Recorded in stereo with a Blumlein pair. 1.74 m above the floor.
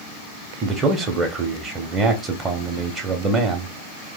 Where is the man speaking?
20° right, 0.9 m.